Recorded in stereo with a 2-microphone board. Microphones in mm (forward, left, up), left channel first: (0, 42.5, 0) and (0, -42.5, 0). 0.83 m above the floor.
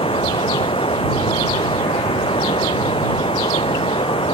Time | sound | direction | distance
0.0 | running water | 90° left | ?